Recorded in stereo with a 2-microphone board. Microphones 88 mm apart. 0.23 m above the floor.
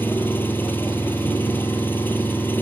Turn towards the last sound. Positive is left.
turn(degrees=20)  # may be behind; listen again after turning